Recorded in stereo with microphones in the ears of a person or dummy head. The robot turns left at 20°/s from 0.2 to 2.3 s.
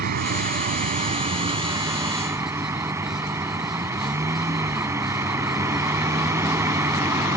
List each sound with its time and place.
0.0 s a vehicle: 125° right; by 7.4 s 170° right